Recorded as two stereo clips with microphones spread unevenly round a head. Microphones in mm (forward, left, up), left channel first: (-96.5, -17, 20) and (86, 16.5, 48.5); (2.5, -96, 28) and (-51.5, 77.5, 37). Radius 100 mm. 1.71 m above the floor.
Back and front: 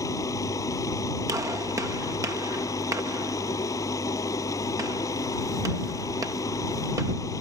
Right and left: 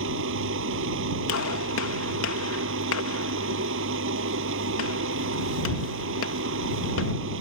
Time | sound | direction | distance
0.0 | a machine running | 115° left | ?
1.3 | a gunshot | 60° right | ?